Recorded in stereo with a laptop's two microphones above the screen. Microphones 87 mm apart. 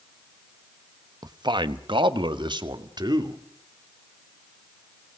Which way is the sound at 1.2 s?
50° right (ahead or behind).